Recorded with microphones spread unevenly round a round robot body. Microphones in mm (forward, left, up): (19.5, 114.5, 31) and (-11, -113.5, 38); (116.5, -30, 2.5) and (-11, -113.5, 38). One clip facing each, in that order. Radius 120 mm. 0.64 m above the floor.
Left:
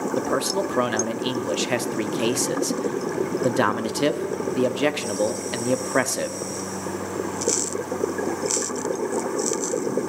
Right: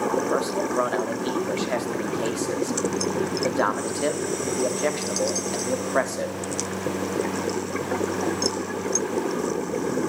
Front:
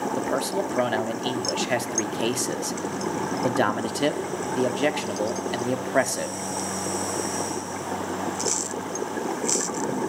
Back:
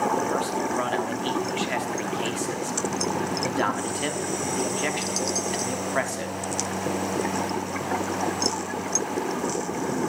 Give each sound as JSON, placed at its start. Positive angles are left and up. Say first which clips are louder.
{"t": 0.2, "sound": "a man speaking", "louder": "left 3 dB, even", "azimuth_deg": 50, "distance_m": 1.0}